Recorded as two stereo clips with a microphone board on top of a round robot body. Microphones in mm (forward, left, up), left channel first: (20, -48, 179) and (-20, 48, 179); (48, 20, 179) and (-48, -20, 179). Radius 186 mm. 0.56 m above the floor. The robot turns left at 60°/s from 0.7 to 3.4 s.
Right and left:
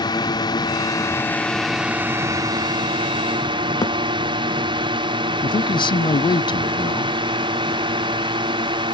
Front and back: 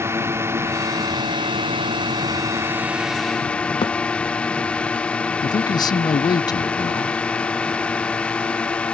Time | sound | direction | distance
0.0 | a drone | 100° right | ?
3.8 | a thud | 20° right | ?
5.4 | a man speaking | 25° right | ?